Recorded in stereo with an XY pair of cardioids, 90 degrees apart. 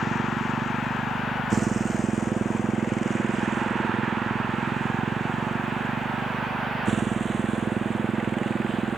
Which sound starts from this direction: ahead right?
A motorcycle, at 0.0 s.